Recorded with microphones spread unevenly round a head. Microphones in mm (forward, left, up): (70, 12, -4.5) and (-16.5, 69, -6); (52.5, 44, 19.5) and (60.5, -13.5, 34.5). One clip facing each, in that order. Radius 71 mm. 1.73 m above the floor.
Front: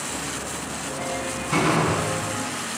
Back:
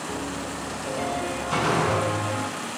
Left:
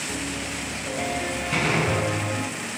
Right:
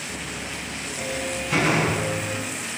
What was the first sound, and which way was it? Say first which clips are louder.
A piano: back 1 dB, left 3 dB; 140° left.